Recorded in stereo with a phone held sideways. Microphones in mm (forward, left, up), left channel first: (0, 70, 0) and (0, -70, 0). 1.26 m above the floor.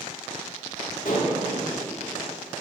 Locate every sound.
1.1 s dishes clattering: 75° left (ahead or behind), 1.5 m